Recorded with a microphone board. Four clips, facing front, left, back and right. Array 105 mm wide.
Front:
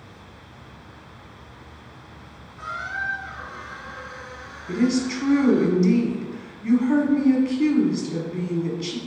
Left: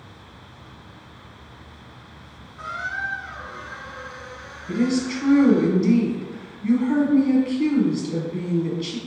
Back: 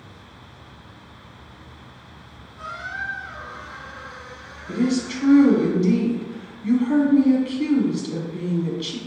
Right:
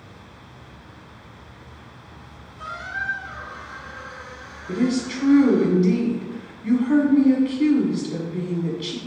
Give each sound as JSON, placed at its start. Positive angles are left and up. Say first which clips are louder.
{"t": 2.6, "sound": "a squeak", "louder": "left 2 dB, front 2 dB", "azimuth_deg": 65, "distance_m": 1.8}
{"t": 4.7, "sound": "a woman speaking", "louder": "even, front 1 dB", "azimuth_deg": 20, "distance_m": 1.3}